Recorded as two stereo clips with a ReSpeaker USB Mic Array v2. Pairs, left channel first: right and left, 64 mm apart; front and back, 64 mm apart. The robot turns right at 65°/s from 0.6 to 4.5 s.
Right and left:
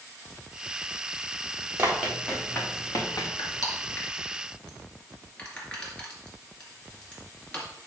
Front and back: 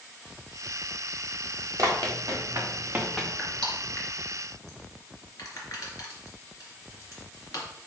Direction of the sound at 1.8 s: 145° left.